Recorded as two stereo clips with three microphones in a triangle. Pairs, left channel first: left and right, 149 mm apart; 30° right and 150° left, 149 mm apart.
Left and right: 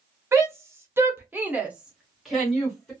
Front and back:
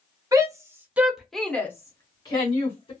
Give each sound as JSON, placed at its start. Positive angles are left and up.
{"t": 0.3, "sound": "a shout", "azimuth_deg": -155, "distance_m": 1.0}